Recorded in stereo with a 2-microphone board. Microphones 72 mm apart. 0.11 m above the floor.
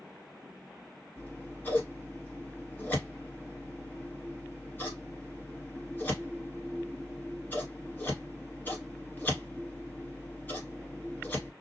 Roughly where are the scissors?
Left.